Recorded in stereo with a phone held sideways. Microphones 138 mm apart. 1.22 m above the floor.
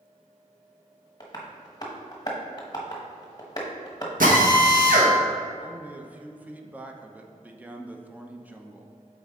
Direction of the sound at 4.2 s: 85° right.